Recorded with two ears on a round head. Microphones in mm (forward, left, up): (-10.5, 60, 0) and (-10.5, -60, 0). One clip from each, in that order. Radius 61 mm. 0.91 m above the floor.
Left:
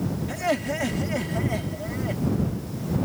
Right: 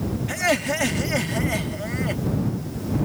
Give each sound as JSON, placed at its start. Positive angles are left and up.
{"t": 0.3, "sound": "laughter", "side_deg": -35}